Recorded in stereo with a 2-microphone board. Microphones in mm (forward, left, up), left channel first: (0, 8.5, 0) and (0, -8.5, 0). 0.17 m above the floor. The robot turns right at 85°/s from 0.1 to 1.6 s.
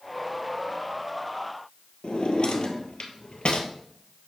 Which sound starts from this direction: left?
A drawer, at 2.0 s.